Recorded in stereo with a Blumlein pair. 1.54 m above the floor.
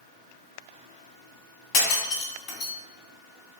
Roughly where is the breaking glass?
Ahead left.